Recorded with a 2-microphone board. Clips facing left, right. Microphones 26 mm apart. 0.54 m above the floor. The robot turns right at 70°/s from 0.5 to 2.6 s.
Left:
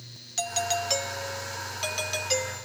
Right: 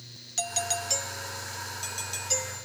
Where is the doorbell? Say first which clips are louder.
Left 3 dB; 10° left; by 2.6 s 155° left.